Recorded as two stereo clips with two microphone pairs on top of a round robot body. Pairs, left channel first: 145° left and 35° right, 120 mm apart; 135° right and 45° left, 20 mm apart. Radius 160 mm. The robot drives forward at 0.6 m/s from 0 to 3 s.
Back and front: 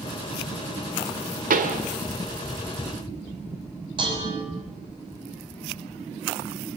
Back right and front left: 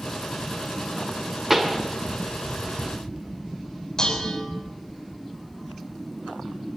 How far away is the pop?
About 2 m.